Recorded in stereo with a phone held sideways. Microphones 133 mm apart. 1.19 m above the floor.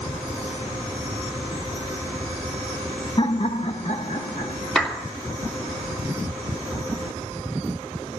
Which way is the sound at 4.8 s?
5° left (ahead or behind).